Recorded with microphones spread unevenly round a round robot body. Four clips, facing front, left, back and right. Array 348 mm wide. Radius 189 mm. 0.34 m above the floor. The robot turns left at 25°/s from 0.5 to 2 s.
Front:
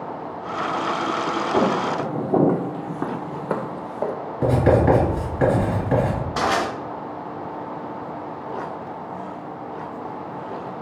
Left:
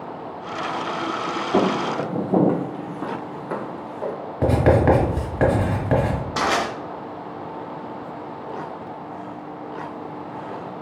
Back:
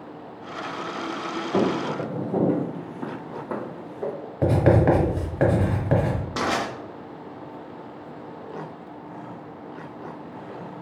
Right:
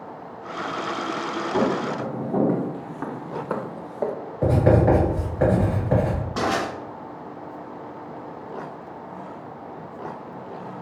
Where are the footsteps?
100° left, 0.9 m; by 4.1 s 35° right, 0.8 m.